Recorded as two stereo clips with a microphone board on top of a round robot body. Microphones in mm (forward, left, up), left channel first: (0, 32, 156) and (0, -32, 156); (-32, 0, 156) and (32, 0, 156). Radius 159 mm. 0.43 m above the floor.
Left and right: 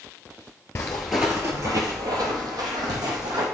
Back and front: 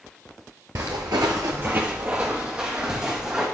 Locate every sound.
0.8 s footsteps: 35° left, 0.6 m; by 3.5 s 80° right, 2 m